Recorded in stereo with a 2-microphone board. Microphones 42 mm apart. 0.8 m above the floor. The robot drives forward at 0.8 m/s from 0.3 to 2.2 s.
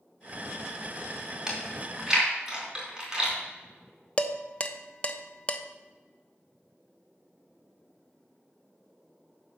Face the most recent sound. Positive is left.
turn(degrees=30)  # may be behind; listen again after turning